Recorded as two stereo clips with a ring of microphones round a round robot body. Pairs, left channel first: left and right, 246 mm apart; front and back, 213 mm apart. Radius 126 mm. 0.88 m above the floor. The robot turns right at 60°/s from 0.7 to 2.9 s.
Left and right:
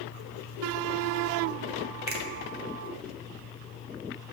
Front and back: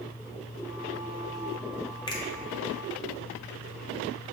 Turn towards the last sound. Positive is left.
turn(degrees=-15)